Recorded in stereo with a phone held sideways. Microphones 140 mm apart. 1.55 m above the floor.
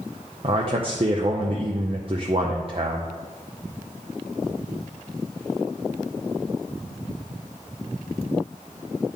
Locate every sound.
0.4 s a man speaking: 40° right (ahead or behind), 0.7 m